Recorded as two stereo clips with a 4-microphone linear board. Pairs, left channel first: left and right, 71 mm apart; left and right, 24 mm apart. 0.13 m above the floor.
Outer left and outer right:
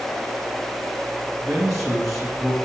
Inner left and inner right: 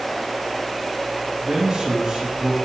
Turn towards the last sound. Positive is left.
turn(degrees=-5)  # may be behind; listen again after turning